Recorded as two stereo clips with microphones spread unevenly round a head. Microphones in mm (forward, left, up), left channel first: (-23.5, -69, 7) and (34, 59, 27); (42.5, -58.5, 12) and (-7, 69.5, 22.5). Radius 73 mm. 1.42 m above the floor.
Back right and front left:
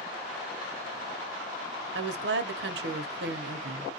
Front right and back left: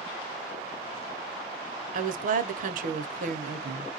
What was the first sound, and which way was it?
A woman speaking, 80° left.